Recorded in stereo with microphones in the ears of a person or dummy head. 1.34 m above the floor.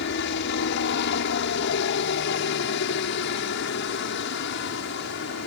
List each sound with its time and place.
0.0 s a helicopter: 60° left (ahead or behind)